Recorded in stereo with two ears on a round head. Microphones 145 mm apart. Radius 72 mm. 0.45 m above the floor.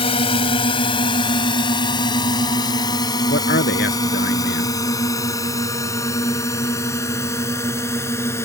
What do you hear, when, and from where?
0.0 s a drone: 35° left (ahead or behind); by 8.4 s 15° left (ahead or behind)
3.3 s a man speaking: 65° left (ahead or behind)